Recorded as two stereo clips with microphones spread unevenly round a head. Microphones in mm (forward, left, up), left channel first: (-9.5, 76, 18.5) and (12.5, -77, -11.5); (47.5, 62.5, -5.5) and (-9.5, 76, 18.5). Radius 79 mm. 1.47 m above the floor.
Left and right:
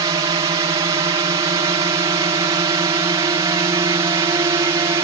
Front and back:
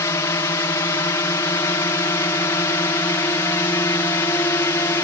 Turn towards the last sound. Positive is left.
turn(degrees=-20)